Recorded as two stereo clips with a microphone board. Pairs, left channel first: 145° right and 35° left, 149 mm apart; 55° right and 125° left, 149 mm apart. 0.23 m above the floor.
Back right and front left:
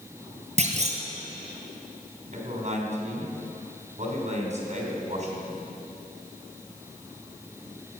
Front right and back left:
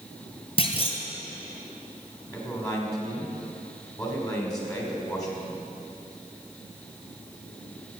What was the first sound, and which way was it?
A clunk, straight ahead.